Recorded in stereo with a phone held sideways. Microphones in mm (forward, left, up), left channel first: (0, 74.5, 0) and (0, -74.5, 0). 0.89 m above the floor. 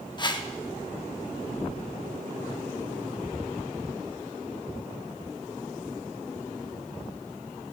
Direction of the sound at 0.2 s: 30° left (ahead or behind).